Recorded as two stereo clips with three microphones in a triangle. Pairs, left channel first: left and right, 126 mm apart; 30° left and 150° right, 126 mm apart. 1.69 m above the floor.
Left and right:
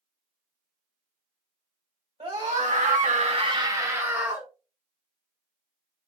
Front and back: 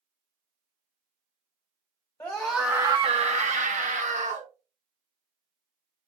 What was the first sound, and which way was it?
A scream, 50° right.